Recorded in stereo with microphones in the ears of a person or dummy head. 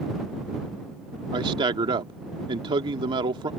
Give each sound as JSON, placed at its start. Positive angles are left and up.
{"t": 1.3, "sound": "a man speaking", "side_deg": -30}